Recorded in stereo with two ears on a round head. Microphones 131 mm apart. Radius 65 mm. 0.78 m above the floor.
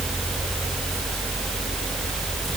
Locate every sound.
Only background noise.